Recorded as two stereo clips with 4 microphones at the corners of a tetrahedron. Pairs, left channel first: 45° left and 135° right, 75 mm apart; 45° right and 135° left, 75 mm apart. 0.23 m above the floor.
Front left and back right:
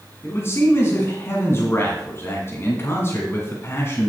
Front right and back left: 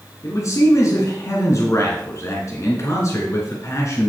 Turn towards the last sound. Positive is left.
turn(degrees=-5)